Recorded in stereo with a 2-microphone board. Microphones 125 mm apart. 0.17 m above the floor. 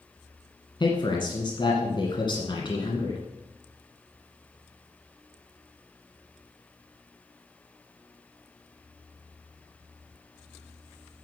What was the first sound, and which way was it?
A man speaking, 40° left (ahead or behind).